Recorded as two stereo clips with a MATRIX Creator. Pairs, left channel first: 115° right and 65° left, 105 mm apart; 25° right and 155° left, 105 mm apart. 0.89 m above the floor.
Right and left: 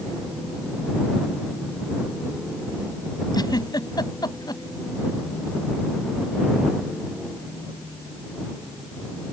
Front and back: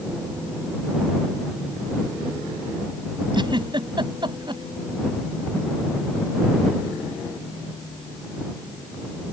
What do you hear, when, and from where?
3.3 s a giggle: 160° right